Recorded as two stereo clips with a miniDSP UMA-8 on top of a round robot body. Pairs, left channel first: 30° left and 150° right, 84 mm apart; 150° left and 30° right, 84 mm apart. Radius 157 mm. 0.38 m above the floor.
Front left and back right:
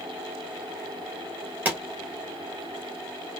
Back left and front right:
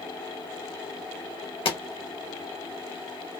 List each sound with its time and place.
1.6 s a pop: 140° left, 2 m